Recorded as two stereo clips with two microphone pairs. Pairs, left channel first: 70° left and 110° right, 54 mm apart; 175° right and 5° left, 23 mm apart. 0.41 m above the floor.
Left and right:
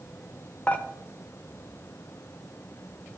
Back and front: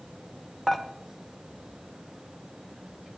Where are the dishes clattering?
115° left, 0.6 m.